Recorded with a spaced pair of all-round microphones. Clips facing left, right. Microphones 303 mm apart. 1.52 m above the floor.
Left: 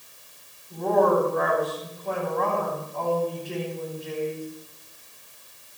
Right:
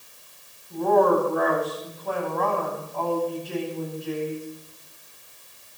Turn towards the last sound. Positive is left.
turn(degrees=-5)  # may be behind; listen again after turning